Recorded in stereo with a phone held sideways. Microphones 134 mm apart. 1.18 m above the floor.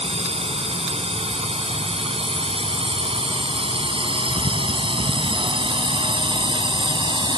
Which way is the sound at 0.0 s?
50° right (ahead or behind).